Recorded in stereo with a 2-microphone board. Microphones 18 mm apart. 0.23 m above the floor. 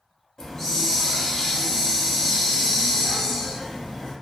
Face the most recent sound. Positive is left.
turn(degrees=25)  # may be behind; listen again after turning